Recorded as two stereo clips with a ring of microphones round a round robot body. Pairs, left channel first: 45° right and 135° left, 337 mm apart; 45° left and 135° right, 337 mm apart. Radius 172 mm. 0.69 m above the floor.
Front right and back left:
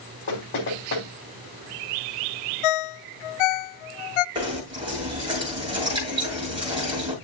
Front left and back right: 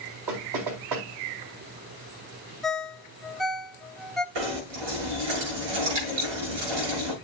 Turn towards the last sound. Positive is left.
turn(degrees=-150)